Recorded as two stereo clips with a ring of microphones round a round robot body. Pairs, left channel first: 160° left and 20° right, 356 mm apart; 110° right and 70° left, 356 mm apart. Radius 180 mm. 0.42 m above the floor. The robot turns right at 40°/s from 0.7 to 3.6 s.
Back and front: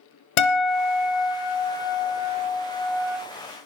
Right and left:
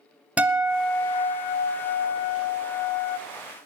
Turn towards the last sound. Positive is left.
turn(degrees=-90)